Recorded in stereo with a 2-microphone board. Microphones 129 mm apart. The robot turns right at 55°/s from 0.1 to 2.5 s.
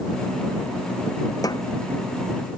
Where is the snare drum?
30° left (ahead or behind); by 1.6 s 40° left (ahead or behind).